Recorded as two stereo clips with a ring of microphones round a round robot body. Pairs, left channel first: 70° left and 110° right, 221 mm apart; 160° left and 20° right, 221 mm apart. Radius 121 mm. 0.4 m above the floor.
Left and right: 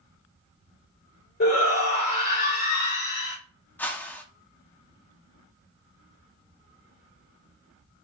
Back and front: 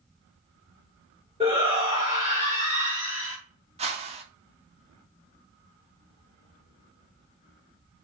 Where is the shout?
40° left, 2.5 m.